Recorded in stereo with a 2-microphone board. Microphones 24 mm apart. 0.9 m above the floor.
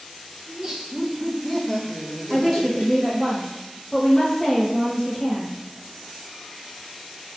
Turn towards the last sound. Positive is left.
turn(degrees=20)  # may be behind; listen again after turning